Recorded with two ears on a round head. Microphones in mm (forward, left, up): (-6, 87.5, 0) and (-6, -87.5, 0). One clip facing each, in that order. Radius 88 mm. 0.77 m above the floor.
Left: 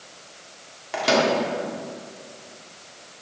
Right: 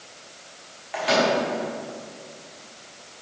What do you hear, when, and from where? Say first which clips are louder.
0.9 s a microwave: left 1 dB; 55° left (ahead or behind), 1.7 m